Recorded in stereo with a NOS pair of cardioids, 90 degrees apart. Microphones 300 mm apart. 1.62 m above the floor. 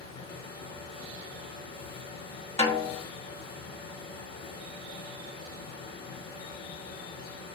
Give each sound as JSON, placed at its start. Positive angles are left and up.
{"t": 0.0, "sound": "a fan", "azimuth_deg": 55, "distance_m": 4.0}
{"t": 2.6, "sound": "a snare drum", "azimuth_deg": 25, "distance_m": 1.6}